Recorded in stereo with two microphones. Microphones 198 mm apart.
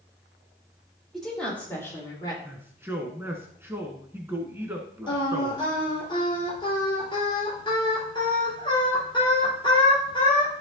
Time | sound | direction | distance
1.1 | a woman speaking | centre (ahead or behind) | 4.5 m
2.5 | a man speaking | 10° right (ahead or behind) | 1.3 m
5.1 | singing | 25° left (ahead or behind) | 3.5 m